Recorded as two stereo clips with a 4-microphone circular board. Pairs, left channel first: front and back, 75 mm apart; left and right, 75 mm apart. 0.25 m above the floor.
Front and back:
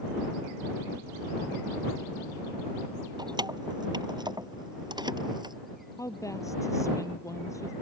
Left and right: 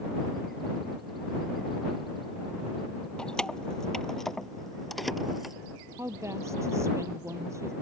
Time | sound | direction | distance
3.2 | keys jangling | 170° left | ?
6.0 | a woman speaking | 40° right | ?